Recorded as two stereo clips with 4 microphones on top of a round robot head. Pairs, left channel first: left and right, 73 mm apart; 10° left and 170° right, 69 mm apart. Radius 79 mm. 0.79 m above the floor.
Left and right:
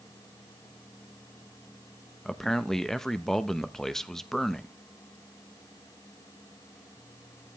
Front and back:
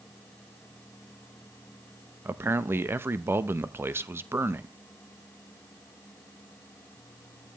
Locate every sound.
2.2 s a man speaking: 170° left, 1.0 m